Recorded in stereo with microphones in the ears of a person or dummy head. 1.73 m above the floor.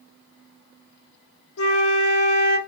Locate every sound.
1.6 s a flute: 75° left (ahead or behind), 0.7 m